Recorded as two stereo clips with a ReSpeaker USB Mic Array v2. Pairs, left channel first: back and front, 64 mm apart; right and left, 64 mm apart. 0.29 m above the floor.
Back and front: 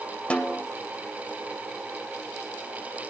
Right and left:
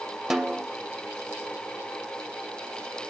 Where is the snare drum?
160° left, 0.6 m.